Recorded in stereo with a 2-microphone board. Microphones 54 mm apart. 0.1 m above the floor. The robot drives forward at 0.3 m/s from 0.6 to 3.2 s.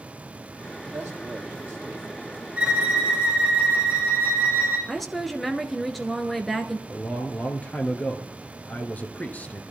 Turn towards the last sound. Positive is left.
turn(degrees=25)  # may be behind; listen again after turning